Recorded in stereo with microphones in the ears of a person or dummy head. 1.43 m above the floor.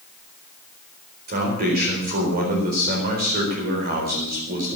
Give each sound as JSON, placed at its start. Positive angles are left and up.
{"t": 1.3, "sound": "a man speaking", "side_deg": -45, "distance_m": 4.5}